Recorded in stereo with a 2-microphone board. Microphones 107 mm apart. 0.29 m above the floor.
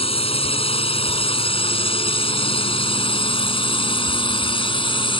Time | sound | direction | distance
0.0 | a drone | 60° left (ahead or behind) | ?